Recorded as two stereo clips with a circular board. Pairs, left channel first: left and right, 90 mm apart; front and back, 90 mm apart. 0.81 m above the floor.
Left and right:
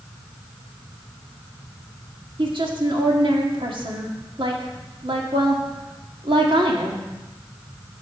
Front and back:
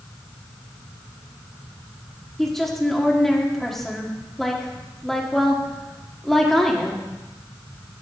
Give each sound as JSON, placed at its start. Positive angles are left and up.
{"t": 2.4, "sound": "a woman speaking", "azimuth_deg": -85, "distance_m": 1.9}